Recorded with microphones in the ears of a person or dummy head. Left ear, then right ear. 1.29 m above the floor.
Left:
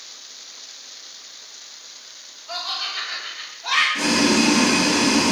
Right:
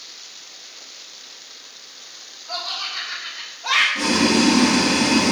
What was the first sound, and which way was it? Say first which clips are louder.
Laughter: even; 15° left (ahead or behind).